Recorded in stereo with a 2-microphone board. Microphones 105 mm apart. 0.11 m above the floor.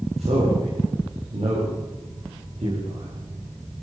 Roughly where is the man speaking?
Right.